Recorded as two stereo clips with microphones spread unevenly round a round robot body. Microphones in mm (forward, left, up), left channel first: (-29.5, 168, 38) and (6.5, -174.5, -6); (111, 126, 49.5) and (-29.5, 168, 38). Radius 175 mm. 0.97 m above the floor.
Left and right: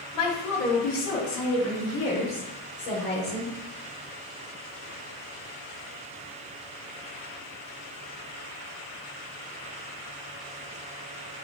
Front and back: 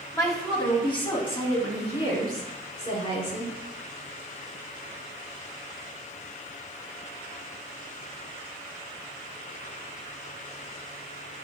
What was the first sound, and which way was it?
A woman speaking, 55° left.